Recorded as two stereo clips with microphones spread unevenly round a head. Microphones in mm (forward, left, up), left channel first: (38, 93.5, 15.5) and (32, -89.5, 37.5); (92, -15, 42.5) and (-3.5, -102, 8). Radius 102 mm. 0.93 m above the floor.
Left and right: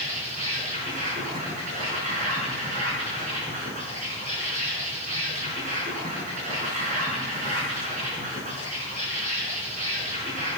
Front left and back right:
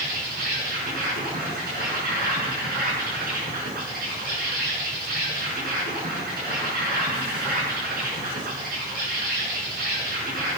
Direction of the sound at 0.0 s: 150° right.